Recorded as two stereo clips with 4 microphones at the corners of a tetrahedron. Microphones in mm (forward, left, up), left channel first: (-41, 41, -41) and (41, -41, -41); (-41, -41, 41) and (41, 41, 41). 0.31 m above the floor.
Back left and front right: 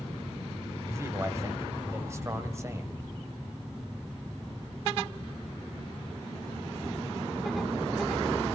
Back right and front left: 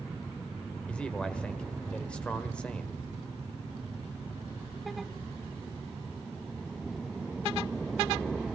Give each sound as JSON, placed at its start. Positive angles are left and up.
{"t": 0.9, "sound": "a man speaking", "azimuth_deg": -65, "distance_m": 1.4}